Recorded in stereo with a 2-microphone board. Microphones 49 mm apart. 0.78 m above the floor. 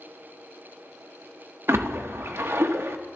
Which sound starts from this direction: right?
A splash, at 1.7 s.